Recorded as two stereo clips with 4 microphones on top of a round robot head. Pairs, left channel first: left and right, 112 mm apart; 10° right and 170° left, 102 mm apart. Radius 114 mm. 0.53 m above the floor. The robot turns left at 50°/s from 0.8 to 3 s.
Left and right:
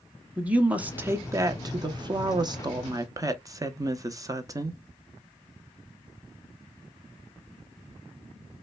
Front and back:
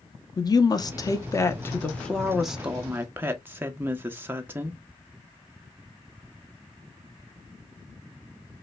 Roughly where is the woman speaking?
Ahead.